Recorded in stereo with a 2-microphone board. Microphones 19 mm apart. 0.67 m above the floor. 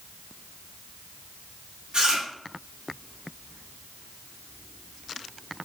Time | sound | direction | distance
1.9 | chewing | 45° right (ahead or behind) | 3.5 m